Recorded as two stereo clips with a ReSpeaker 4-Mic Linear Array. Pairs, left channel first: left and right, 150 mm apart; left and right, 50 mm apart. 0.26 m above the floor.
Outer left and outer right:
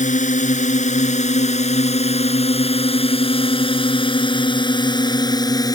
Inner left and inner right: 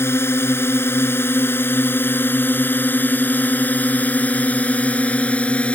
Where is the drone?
65° left (ahead or behind); by 5.8 s 25° left (ahead or behind).